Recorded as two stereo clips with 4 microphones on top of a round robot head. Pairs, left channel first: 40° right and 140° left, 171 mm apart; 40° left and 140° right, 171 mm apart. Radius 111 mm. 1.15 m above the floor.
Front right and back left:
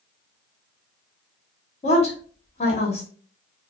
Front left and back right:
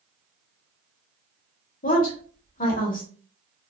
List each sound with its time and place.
1.8 s a woman speaking: 5° left, 1.6 m